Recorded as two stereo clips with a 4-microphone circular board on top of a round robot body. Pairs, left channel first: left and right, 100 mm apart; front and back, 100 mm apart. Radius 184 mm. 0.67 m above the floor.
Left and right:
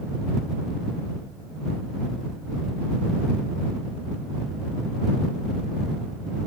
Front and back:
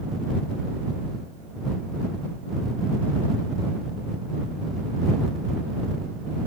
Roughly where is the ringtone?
I don't hear a ringtone.